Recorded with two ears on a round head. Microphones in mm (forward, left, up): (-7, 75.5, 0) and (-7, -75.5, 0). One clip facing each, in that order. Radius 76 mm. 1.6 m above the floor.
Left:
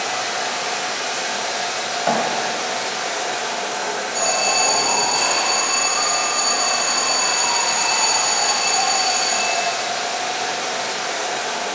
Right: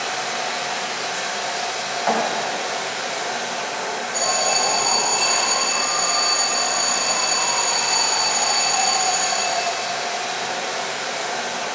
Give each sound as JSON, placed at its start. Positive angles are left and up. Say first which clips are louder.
{"t": 0.0, "sound": "running water", "louder": "left 2 dB", "side_deg": 60, "distance_m": 3.0}
{"t": 2.1, "sound": "a thud", "louder": "left 1 dB", "side_deg": 30, "distance_m": 1.6}
{"t": 4.1, "sound": "an alarm", "louder": "left 1 dB", "side_deg": -20, "distance_m": 3.0}